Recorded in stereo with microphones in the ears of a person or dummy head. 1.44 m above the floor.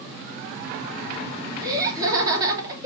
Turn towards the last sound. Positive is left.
turn(degrees=-15)  # may be behind; listen again after turning